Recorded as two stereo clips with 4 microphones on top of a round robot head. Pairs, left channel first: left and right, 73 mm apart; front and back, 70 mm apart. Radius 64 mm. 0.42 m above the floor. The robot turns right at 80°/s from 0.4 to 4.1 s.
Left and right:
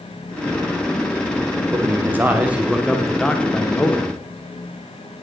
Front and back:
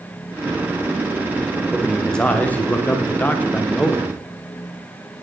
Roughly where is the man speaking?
Right.